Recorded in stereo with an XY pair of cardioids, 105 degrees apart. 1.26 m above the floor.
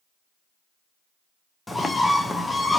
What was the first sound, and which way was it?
A bird, 20° left.